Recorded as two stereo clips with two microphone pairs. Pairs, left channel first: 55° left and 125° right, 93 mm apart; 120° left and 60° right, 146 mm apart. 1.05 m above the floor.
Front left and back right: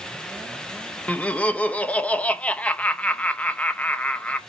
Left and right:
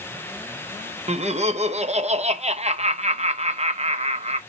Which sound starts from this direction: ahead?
Laughter, at 1.1 s.